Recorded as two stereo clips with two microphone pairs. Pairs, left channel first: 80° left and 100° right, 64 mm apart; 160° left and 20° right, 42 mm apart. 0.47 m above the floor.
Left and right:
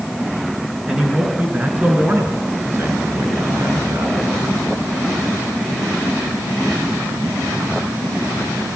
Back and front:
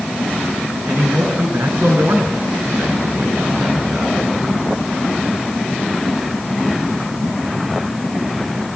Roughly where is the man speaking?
Ahead.